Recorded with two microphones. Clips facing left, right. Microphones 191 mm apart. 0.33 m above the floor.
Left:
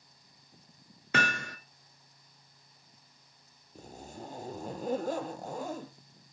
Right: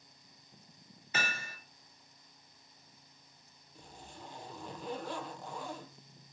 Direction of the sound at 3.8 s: 45° left (ahead or behind).